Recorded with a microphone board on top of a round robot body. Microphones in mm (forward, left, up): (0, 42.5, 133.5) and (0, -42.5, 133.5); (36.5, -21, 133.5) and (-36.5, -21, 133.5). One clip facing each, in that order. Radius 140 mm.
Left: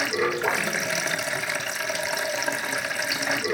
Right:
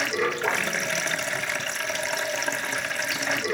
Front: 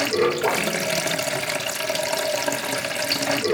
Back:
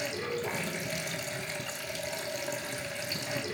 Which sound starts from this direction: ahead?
Running water, at 0.0 s.